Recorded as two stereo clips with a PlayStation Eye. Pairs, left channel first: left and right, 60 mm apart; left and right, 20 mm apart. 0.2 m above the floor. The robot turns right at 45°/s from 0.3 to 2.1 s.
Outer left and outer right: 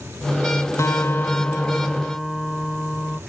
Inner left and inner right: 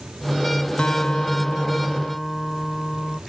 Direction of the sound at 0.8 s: 125° left.